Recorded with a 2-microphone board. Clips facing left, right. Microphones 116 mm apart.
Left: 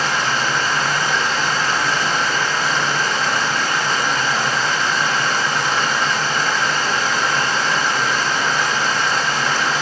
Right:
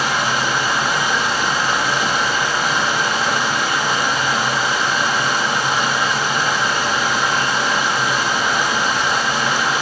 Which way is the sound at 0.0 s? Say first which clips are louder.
Right 1 dB; 15° right (ahead or behind).